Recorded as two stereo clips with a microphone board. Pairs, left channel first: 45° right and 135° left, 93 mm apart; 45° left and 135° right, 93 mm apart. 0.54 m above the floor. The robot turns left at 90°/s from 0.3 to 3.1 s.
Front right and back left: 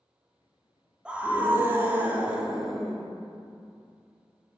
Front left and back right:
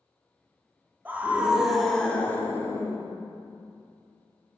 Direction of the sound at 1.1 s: 165° right.